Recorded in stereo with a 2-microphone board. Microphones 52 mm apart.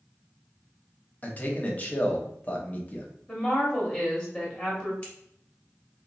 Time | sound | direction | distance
1.2 | a man speaking | 30° left (ahead or behind) | 0.9 m
3.3 | a woman speaking | 10° left (ahead or behind) | 1.3 m
5.0 | scissors | 20° left (ahead or behind) | 1.6 m